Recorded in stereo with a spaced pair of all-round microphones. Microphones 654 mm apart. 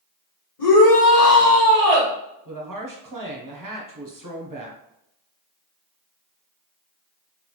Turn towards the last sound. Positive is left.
turn(degrees=-30)  # may be behind; listen again after turning